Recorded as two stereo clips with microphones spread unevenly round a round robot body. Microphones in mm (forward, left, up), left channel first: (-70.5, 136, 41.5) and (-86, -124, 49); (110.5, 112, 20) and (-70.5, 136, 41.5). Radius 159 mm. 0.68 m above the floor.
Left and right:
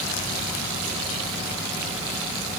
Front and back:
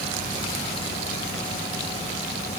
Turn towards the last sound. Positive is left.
No sound to turn to.